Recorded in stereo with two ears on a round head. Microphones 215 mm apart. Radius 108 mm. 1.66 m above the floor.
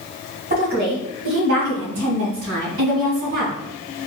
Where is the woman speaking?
40° right (ahead or behind), 1.5 m; by 3.5 s 85° right, 2.5 m.